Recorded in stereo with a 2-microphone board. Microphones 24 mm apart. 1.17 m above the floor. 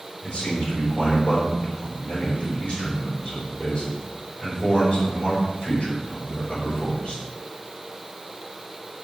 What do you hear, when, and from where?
0.2 s a man speaking: 45° left (ahead or behind), 5 m